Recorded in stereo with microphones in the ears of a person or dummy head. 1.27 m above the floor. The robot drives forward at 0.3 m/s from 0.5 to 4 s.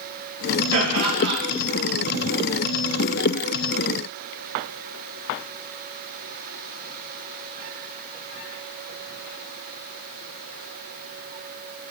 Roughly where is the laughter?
Right.